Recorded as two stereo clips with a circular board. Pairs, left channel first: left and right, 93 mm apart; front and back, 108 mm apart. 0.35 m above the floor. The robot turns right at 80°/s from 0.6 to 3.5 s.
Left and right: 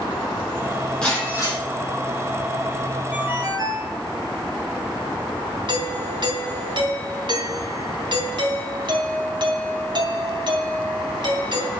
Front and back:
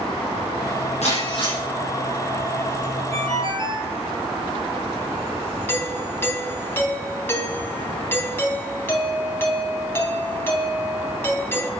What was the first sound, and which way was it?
Breaking glass, 10° left.